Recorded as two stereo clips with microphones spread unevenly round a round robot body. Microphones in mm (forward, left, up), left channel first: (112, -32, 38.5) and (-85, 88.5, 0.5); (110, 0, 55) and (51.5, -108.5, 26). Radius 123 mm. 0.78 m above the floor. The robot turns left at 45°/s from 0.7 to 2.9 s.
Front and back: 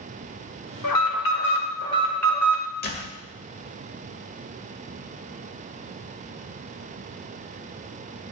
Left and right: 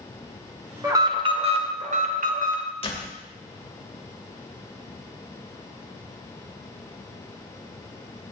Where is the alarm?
55° right, 1.9 m; by 2.6 s 135° right, 1.9 m.